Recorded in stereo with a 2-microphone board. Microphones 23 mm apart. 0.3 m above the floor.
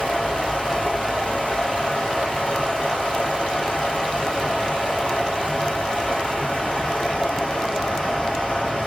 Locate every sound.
0.0 s running water: 50° left (ahead or behind), 5 m